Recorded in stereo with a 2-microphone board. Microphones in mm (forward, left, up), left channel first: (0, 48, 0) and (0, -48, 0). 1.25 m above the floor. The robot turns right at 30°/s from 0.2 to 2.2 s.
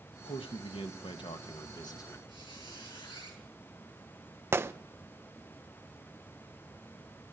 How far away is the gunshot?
About 0.7 m.